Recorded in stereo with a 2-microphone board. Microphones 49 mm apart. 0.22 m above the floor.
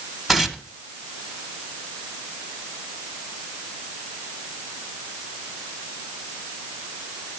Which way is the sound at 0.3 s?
Centre (ahead or behind).